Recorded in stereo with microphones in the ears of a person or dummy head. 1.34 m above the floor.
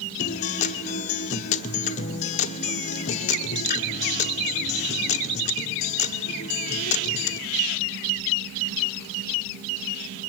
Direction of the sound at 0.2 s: 40° left (ahead or behind).